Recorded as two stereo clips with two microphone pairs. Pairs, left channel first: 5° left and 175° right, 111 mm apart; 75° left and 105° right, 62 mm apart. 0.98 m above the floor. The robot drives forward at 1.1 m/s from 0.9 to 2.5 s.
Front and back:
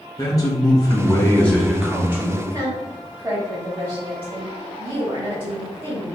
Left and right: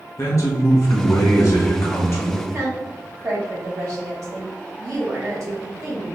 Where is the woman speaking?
135° right, 1.9 m.